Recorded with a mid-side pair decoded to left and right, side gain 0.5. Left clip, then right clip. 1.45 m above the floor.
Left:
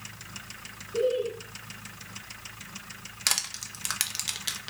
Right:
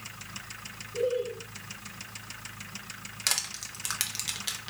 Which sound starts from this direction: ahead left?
Laughter, at 0.9 s.